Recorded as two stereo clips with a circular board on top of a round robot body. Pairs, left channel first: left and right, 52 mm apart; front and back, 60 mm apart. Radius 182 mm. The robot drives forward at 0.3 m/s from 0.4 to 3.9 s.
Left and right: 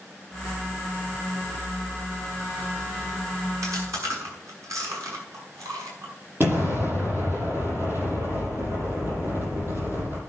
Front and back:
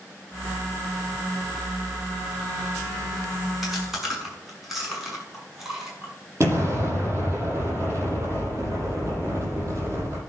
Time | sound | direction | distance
3.6 | chewing | 95° right | 7.5 m
6.4 | an explosion | 135° right | 7 m